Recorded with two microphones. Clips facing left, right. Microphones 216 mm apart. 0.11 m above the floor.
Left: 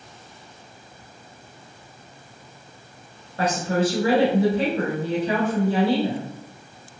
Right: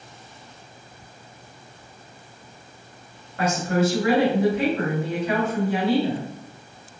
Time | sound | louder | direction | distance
3.4 | a woman speaking | even | 30° left (ahead or behind) | 1.3 m